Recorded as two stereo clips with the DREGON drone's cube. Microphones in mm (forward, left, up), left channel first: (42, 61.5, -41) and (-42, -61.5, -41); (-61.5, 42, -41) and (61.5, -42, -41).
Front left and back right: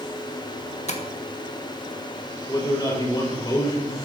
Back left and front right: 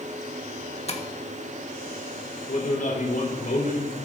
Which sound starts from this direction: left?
Tapping, at 0.9 s.